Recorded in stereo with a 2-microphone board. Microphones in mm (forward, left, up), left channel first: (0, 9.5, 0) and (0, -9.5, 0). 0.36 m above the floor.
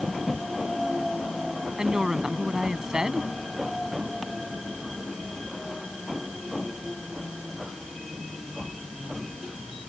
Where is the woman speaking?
40° right (ahead or behind).